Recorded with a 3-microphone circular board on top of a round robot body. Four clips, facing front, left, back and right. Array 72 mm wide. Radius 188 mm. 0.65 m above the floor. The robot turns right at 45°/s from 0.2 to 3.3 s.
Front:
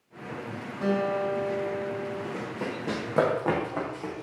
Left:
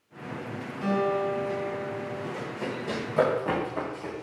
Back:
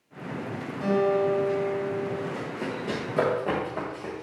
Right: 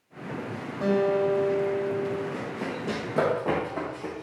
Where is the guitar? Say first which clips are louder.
Right 3 dB, back 3 dB; 75° right, 2.5 m; by 2.2 s 15° right, 2.5 m.